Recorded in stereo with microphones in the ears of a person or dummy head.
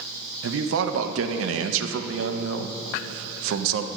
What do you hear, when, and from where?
0.4 s a man speaking: 85° right, 0.6 m